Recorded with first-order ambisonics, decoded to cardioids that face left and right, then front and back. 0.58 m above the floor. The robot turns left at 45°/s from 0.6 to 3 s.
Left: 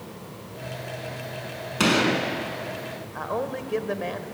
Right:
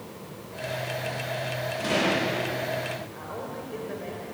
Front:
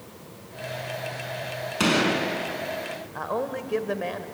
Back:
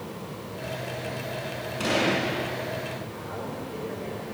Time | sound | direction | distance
1.8 | a gunshot | 60° left | 5 m
3.1 | a man speaking | 40° left | 1.9 m